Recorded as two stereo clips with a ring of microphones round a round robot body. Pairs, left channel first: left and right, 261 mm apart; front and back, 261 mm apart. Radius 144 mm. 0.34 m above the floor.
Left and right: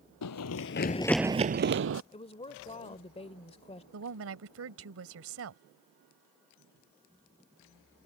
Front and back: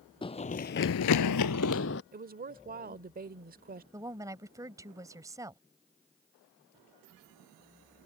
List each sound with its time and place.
0.2 s running footsteps: 70° left; by 2.0 s 55° right
2.1 s a woman speaking: 145° left
3.9 s a woman speaking: 105° right